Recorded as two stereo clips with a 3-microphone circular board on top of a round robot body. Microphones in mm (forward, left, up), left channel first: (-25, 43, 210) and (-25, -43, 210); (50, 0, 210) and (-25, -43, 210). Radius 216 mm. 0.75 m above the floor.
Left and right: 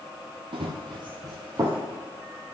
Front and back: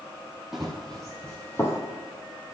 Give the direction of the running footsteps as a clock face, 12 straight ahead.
2 o'clock.